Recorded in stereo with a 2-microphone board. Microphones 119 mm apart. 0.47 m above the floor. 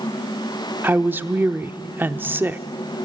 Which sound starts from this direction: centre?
A woman speaking, at 0.8 s.